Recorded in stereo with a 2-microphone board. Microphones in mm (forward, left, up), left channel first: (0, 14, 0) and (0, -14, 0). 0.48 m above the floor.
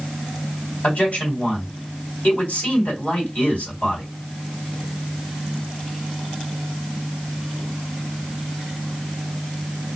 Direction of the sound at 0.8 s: 55° left (ahead or behind).